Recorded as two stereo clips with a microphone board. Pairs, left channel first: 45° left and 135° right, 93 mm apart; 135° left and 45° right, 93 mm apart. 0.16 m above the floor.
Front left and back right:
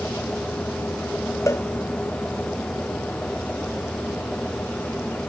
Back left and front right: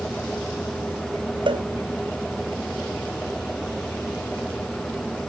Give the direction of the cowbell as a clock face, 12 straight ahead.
1 o'clock.